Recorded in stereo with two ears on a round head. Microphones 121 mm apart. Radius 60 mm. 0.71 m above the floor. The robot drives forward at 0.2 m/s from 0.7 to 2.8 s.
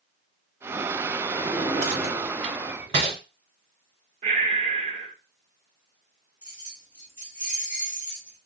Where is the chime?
No chime in this recording.